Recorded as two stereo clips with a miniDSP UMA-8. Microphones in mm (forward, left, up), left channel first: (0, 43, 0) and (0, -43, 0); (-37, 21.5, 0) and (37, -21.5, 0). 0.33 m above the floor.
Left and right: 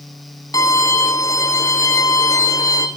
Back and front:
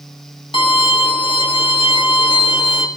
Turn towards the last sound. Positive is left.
turn(degrees=140)